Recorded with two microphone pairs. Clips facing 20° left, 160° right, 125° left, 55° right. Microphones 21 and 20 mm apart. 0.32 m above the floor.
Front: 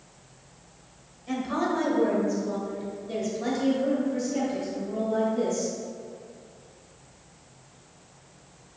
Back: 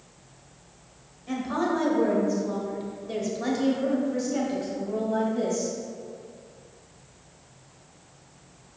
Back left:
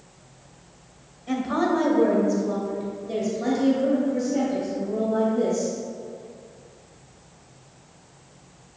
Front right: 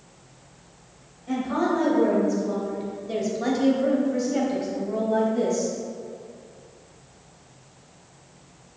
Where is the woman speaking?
115° left, 1.4 m; by 5.7 s 90° right, 2.5 m.